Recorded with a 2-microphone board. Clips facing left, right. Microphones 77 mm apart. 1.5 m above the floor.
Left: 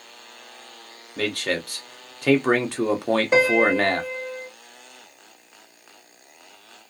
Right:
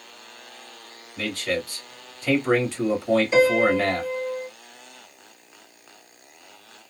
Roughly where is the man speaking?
Left.